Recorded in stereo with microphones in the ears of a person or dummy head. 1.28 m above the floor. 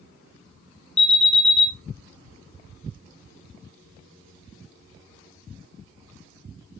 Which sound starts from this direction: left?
An alarm, at 1.0 s.